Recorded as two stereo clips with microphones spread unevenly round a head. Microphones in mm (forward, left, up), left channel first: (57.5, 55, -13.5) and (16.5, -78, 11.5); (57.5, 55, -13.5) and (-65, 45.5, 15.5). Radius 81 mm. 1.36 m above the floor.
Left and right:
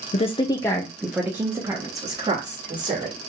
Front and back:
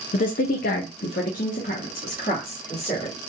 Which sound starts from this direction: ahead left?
A woman speaking, at 0.1 s.